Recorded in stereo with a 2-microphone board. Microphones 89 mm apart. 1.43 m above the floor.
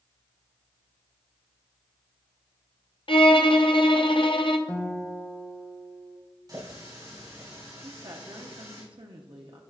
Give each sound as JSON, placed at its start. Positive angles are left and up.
{"t": 3.1, "sound": "a violin", "side_deg": 75, "distance_m": 0.6}
{"t": 4.7, "sound": "a guitar", "side_deg": 15, "distance_m": 0.9}
{"t": 6.5, "sound": "a running tap", "side_deg": -50, "distance_m": 3.5}
{"t": 7.8, "sound": "a woman speaking", "side_deg": -65, "distance_m": 0.7}